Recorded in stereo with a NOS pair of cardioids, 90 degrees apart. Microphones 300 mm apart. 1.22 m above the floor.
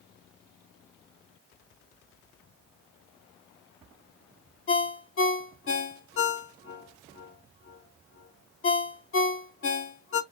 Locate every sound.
4.7 s a ringtone: 45° left, 1.3 m